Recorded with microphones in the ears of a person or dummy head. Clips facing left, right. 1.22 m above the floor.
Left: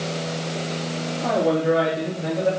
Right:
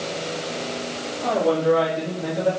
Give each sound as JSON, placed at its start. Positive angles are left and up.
{"t": 1.2, "sound": "a man speaking", "side_deg": 15, "distance_m": 2.5}